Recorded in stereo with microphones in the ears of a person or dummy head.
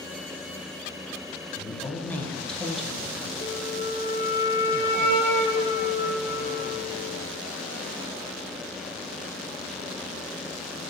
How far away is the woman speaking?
About 1.0 m.